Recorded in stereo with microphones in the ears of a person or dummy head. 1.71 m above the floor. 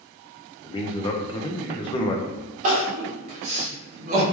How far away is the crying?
About 0.8 m.